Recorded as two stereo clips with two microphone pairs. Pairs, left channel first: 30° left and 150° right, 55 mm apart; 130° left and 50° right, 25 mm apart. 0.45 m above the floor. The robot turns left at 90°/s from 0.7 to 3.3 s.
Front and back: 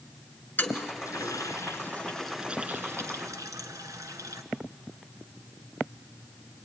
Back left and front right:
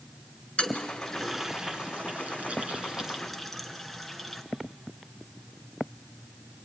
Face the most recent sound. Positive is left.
turn(degrees=-145)